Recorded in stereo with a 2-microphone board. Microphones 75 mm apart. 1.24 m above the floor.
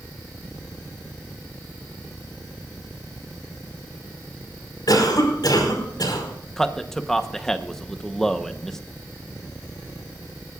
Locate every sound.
4.9 s a cough: 60° left (ahead or behind), 5 m
6.6 s a man speaking: 5° left (ahead or behind), 0.9 m